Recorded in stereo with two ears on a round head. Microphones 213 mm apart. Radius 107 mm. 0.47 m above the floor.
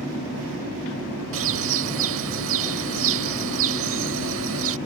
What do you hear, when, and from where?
1.3 s a bird: 55° right (ahead or behind)